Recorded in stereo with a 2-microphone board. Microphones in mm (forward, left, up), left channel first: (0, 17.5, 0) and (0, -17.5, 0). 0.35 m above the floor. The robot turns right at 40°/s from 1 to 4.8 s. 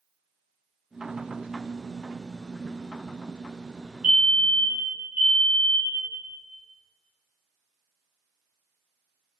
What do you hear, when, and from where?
4.0 s a fire alarm: 145° right, 2.5 m; by 6.1 s 110° right, 2.5 m